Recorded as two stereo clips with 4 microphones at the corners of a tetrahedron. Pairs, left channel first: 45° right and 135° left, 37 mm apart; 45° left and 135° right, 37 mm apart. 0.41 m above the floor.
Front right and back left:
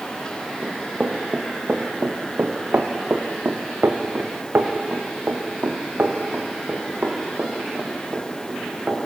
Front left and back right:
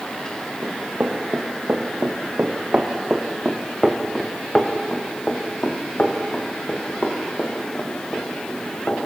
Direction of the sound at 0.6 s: 160° right.